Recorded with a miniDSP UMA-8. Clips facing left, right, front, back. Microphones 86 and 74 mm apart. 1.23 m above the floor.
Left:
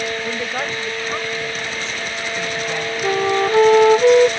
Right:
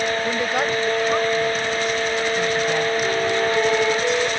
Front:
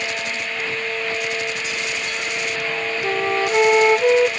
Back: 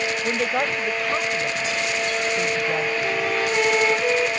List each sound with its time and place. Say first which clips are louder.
0.2 s a woman speaking: right 3 dB, back 4 dB; 170° right
3.0 s a flute: left 3 dB, front 2 dB; 60° left